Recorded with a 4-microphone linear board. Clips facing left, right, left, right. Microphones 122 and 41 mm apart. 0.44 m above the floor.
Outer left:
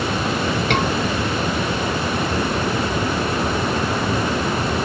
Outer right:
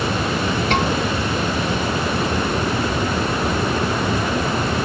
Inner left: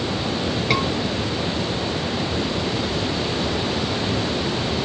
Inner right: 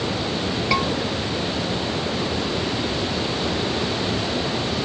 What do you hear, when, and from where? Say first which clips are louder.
0.7 s a scream: outer right 1 dB, even; 70° left (ahead or behind), 7 m